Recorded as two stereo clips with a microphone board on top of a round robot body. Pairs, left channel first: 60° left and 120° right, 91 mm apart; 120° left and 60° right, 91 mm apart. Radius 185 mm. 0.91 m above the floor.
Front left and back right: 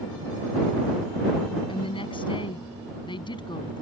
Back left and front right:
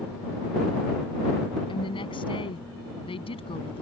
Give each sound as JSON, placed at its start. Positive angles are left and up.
{"t": 1.7, "sound": "a woman speaking", "azimuth_deg": 85}